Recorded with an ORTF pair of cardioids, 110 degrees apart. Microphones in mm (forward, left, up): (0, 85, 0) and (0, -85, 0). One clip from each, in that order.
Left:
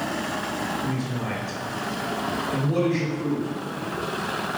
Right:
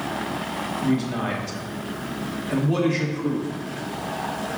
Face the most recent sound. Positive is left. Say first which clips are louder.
# right 4 dB
turn(degrees=-60)